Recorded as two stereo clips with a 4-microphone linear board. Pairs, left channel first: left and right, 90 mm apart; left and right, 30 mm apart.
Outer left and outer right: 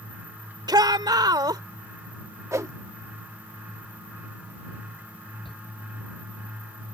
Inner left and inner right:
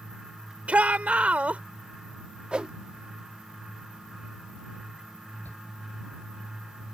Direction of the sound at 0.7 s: 50° right (ahead or behind).